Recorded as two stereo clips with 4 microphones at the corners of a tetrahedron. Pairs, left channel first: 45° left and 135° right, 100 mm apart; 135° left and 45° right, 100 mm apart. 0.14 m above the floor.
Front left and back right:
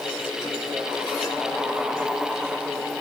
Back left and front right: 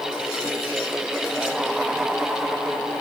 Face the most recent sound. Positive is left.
No sound to turn to.